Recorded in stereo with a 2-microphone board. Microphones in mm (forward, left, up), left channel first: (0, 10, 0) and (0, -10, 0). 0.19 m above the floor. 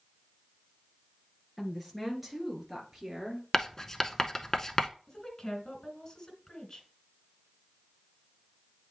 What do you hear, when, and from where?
1.6 s a woman speaking: centre (ahead or behind), 2.5 m; by 3.4 s 20° right (ahead or behind), 3 m
3.5 s writing: 20° left (ahead or behind), 0.6 m
5.1 s a woman speaking: 30° left (ahead or behind), 2 m